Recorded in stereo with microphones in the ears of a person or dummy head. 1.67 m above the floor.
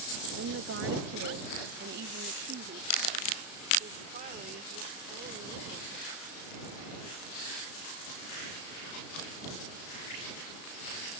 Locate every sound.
0.4 s a woman speaking: 80° right; by 6.2 s 40° right (ahead or behind)